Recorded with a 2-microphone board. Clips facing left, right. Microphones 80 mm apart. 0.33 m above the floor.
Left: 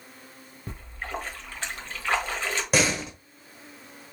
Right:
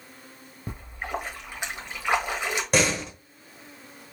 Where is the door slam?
Centre (ahead or behind), 0.9 m.